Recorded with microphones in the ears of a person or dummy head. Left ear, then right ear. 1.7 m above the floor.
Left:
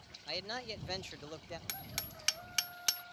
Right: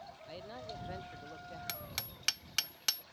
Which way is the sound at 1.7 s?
Centre (ahead or behind).